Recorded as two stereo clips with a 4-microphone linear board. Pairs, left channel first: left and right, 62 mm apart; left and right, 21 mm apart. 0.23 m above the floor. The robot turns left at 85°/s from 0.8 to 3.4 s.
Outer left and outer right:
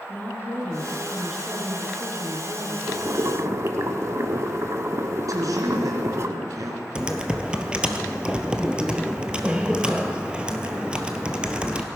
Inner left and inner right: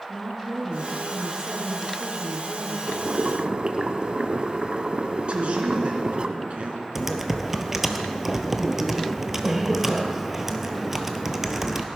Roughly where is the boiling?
Ahead right.